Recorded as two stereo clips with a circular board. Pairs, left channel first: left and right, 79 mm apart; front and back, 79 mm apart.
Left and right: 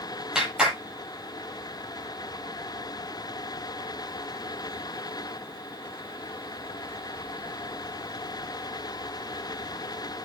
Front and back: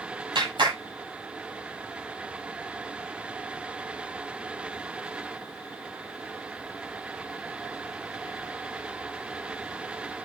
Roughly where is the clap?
Behind.